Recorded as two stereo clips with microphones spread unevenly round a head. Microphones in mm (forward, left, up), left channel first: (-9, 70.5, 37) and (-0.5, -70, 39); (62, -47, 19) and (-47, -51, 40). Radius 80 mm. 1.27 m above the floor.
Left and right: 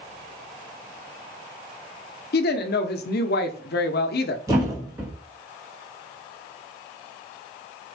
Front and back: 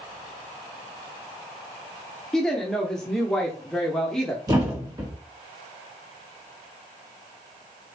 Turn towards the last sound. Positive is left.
turn(degrees=-150)